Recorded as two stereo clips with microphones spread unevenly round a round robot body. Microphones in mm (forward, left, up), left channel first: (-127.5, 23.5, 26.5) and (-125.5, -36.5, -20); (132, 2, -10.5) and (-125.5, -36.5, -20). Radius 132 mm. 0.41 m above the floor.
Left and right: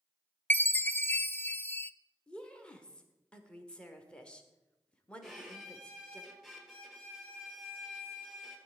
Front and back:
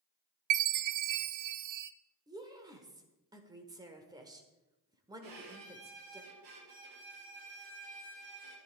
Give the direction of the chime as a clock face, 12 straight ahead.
6 o'clock.